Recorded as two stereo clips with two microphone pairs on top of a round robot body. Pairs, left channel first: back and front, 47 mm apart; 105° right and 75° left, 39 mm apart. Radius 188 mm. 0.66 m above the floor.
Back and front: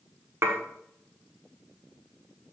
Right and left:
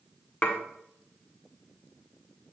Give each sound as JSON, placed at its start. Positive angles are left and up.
{"t": 0.4, "sound": "dishes clattering", "azimuth_deg": -40, "distance_m": 1.4}